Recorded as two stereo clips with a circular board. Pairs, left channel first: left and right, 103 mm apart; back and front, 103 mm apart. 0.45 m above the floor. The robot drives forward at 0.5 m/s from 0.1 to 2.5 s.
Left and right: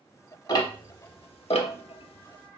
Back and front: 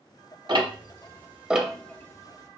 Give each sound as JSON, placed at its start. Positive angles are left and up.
{"t": 0.5, "sound": "ticking", "azimuth_deg": 40, "distance_m": 0.8}